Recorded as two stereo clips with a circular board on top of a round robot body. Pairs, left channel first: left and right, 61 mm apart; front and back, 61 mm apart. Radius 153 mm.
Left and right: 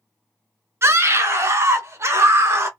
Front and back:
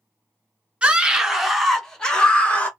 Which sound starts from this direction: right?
A scream, at 0.8 s.